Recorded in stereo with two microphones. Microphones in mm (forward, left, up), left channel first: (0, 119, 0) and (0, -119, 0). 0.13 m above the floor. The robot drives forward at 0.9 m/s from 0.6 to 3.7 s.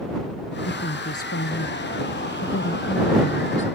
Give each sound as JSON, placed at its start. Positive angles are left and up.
{"t": 0.7, "sound": "a woman speaking", "side_deg": 70}